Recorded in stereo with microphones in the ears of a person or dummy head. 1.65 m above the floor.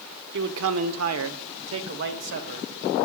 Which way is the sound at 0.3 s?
65° right (ahead or behind).